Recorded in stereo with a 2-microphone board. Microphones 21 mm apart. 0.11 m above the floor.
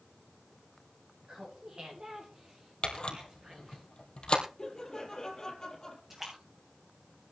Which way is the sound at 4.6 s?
25° left (ahead or behind).